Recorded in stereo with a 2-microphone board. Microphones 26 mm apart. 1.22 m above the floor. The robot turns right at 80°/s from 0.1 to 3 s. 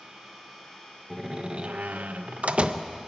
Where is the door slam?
175° right, 0.8 m; by 2.9 s 30° right, 0.8 m.